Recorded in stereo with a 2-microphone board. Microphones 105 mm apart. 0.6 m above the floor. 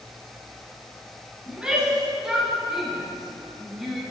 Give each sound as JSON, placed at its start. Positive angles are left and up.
{"t": 1.5, "sound": "a shout", "side_deg": -10, "distance_m": 5.5}